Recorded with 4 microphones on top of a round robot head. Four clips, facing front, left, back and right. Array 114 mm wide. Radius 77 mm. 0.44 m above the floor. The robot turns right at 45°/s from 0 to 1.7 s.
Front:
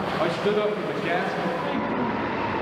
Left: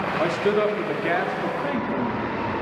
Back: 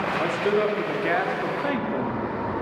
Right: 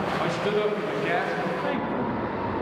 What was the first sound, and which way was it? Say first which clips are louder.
A man speaking: left 5 dB, even; 85° left.